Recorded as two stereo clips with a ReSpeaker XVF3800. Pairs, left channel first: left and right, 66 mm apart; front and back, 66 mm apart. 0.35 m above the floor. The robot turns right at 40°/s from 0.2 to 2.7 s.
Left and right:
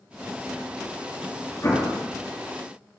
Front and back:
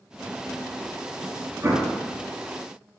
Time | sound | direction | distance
1.6 | an explosion | 135° left | 3 m